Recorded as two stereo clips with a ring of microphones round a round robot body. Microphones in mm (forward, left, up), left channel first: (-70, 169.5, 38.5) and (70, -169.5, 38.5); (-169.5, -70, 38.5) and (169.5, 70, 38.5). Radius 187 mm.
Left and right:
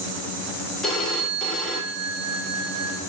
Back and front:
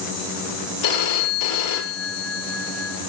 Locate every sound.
0.8 s a phone ringing: 160° right, 0.9 m